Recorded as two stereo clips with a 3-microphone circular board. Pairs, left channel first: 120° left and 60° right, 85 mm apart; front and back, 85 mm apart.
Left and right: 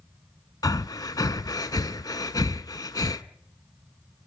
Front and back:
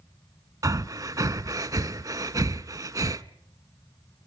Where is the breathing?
150° left, 0.7 m.